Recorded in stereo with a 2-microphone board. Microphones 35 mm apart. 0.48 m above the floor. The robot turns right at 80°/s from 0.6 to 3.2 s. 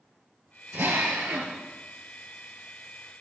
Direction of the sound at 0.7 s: 130° right.